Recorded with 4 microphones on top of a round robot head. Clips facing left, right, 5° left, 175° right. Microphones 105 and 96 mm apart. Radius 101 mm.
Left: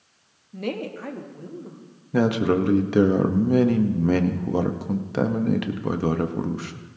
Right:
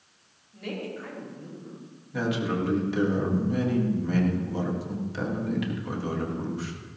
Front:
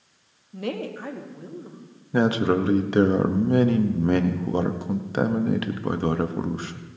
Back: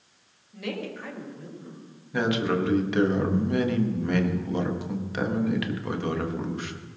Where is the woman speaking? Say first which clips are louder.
Left 5 dB, front 4 dB; 60° left, 1.3 m.